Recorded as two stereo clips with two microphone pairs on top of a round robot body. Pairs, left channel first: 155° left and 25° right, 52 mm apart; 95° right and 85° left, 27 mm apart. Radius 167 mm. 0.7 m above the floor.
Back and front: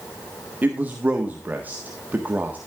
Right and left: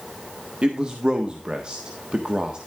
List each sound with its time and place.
0.6 s a man speaking: 35° left, 1.5 m